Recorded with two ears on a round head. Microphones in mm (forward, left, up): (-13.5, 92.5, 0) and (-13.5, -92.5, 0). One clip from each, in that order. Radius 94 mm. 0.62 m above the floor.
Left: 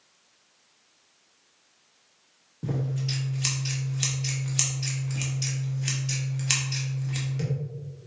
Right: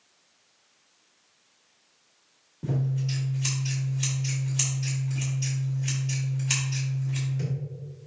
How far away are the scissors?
About 1.1 m.